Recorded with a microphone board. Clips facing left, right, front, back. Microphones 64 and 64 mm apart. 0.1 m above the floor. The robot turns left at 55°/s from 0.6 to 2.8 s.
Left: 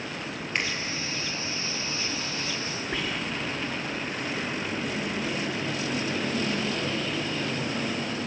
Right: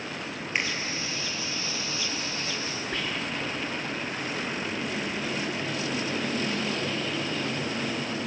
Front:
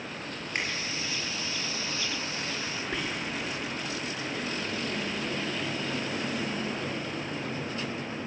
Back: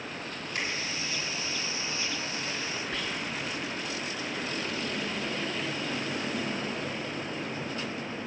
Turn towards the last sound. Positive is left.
turn(degrees=30)